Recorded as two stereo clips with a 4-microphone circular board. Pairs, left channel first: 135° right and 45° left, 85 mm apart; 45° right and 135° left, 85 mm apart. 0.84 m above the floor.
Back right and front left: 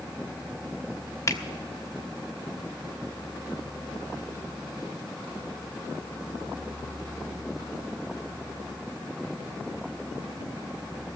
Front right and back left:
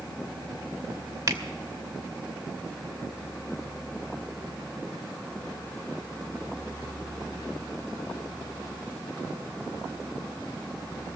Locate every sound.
1.3 s a finger snap: 175° left, 1.2 m